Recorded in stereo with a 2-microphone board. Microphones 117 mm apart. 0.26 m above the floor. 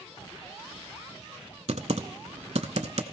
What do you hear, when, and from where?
1.7 s typing on a keyboard: 70° right (ahead or behind), 0.7 m